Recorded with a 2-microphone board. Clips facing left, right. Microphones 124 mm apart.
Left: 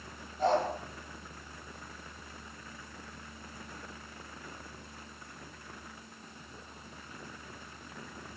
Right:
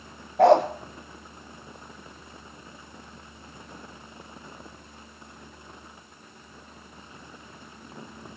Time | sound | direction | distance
0.4 | a dog barking | 70° right (ahead or behind) | 1.8 m